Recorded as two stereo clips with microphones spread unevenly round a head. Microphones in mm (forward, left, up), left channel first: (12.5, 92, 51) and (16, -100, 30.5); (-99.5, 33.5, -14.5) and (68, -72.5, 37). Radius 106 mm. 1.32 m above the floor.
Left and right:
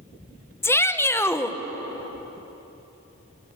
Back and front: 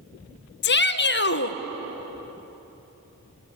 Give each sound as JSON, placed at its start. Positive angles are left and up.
{"t": 0.6, "sound": "a shout", "azimuth_deg": 170, "distance_m": 1.2}